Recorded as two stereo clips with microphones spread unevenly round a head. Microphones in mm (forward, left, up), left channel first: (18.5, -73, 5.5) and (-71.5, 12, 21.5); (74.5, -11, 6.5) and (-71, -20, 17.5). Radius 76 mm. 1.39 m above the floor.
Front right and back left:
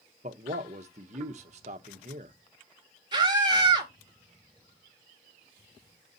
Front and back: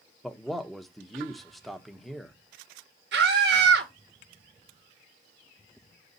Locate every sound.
0.2 s a man speaking: 95° left, 0.9 m
3.1 s a scream: 170° right, 2 m